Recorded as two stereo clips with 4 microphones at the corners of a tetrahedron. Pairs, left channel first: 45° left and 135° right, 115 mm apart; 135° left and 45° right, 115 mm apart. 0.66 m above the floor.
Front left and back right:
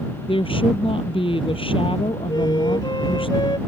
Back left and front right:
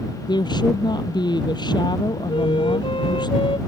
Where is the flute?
95° left.